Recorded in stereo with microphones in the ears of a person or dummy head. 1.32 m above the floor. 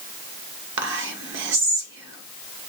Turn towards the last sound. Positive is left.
turn(degrees=-65)  # may be behind; listen again after turning